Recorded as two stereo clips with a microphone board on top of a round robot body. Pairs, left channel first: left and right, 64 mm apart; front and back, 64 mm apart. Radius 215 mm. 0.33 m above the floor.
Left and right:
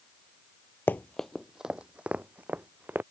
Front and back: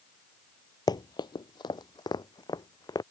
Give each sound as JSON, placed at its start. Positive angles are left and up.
{"t": 0.9, "sound": "running footsteps", "azimuth_deg": 30}